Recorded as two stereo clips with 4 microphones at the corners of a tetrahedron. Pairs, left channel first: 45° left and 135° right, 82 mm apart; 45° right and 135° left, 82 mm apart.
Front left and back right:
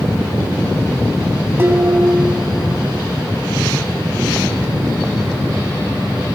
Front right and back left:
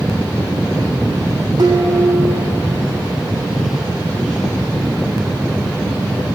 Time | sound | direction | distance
1.6 | dishes clattering | 165° left | 2.5 m